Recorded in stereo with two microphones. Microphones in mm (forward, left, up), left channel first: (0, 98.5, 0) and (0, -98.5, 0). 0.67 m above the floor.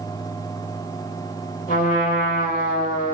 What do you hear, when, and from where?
1.7 s a trumpet: 45° left (ahead or behind), 2.5 m